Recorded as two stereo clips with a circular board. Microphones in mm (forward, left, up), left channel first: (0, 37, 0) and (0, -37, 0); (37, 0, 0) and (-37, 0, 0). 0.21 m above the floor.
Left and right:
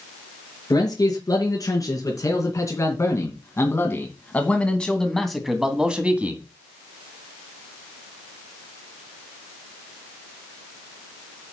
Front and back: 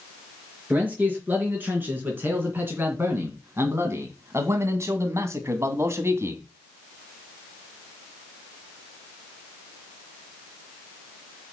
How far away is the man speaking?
About 4 m.